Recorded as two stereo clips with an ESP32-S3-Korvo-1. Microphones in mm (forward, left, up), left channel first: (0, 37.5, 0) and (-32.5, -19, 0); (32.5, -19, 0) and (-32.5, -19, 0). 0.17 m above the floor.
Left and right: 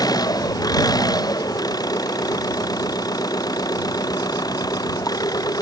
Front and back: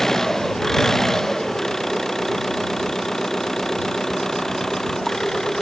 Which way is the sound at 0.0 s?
85° left.